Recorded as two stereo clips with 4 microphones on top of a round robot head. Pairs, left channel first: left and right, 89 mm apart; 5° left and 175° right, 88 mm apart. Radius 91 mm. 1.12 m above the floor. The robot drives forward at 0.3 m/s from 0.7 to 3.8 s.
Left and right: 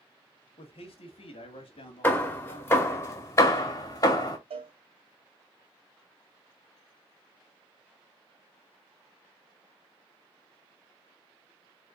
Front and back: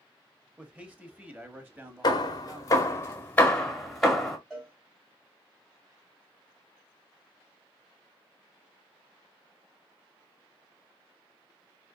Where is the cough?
No cough in this recording.